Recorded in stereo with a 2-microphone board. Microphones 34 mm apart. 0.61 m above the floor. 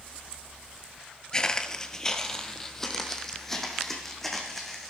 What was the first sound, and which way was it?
Footsteps, 20° left (ahead or behind).